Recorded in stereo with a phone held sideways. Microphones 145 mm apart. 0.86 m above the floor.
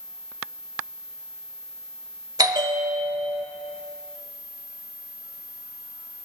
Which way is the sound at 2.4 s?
25° right (ahead or behind).